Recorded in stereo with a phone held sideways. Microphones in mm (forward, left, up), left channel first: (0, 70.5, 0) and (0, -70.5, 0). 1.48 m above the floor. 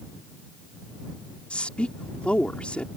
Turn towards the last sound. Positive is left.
turn(degrees=10)  # may be behind; listen again after turning